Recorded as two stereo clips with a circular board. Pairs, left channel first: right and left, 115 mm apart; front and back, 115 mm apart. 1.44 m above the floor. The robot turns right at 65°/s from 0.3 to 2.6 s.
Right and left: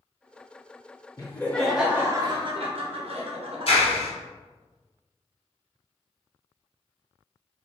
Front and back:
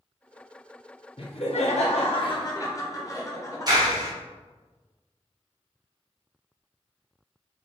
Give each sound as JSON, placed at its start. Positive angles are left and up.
{"t": 1.2, "sound": "laughter", "azimuth_deg": -35, "distance_m": 1.0}
{"t": 3.7, "sound": "a clap", "azimuth_deg": -125, "distance_m": 1.0}